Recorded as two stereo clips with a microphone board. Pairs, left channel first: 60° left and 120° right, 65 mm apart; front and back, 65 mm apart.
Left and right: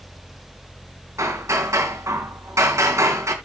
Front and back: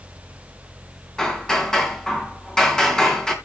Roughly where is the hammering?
Right.